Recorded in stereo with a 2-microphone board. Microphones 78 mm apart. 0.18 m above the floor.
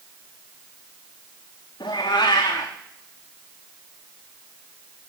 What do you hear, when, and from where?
1.8 s a cat meowing: 65° left (ahead or behind), 2.5 m